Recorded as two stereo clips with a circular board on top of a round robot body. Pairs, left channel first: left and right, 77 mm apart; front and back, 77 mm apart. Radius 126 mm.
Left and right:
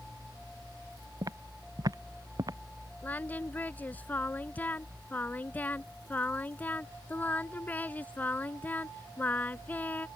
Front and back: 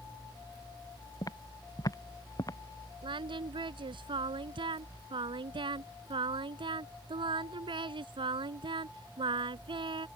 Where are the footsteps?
45° right; by 2.6 s 50° right.